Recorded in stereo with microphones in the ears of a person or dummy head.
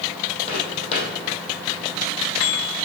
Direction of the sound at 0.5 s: 35° left (ahead or behind).